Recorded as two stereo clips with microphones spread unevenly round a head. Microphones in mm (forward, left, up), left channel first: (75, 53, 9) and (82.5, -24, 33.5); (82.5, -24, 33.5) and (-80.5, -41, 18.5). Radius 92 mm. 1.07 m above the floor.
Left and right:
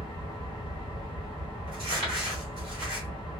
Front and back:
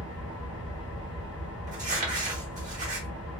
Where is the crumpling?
125° right, 1.1 m.